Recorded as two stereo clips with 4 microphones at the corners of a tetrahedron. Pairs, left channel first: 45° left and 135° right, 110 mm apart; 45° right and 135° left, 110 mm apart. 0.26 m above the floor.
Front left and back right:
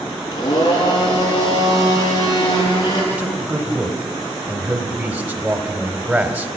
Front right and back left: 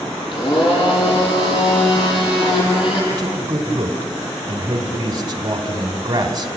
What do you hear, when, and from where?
0.3 s a blender: 5° right, 7.5 m
3.1 s a man speaking: 160° left, 1.9 m